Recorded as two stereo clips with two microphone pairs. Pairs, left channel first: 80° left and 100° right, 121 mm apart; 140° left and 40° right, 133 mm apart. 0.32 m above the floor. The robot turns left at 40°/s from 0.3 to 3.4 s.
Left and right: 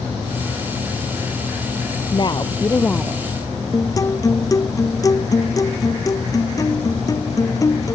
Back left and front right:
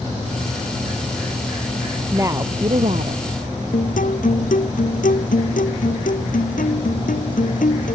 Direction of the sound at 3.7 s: 140° left.